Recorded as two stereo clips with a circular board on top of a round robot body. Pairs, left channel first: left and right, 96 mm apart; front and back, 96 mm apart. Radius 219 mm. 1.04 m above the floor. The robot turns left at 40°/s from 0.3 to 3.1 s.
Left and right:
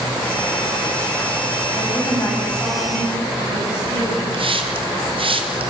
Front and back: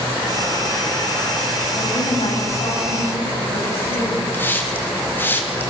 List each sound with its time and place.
1.8 s a woman speaking: 40° left, 6.5 m; by 4.2 s 10° right, 6.5 m
4.3 s a hiss: 70° right, 2.5 m